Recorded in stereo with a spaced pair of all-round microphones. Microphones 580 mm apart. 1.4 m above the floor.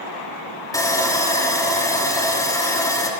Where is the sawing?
5° left (ahead or behind), 3 m.